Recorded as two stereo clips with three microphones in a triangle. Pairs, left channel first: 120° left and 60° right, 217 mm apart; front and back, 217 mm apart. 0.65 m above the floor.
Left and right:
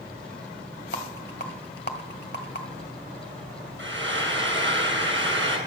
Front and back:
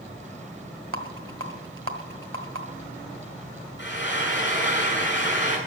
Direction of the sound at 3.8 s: 35° right.